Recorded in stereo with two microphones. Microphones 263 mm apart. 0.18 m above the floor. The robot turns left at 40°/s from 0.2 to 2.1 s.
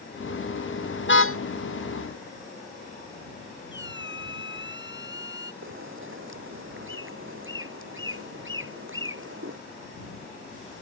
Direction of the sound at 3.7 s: 45° left (ahead or behind).